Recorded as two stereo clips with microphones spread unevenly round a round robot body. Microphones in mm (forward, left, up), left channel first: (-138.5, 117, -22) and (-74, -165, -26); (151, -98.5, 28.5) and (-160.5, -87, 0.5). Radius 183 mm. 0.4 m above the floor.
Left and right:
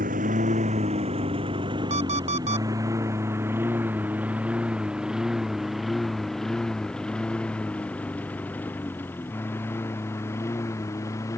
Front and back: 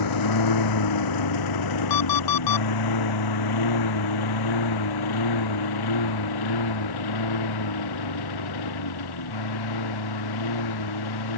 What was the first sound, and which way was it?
A lawn mower, 10° right.